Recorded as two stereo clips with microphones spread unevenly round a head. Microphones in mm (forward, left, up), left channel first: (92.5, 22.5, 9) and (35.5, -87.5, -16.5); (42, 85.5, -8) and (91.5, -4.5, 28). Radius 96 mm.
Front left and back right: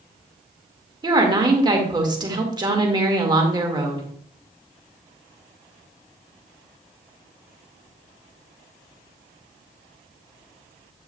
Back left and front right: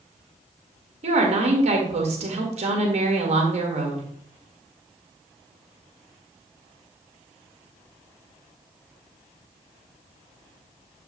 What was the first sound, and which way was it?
A woman speaking, 60° right.